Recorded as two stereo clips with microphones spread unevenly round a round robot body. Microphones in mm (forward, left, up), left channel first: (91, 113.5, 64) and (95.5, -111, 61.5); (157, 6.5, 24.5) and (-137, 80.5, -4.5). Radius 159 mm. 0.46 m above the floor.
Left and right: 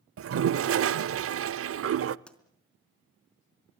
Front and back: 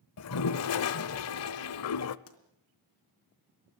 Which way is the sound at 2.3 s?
5° left.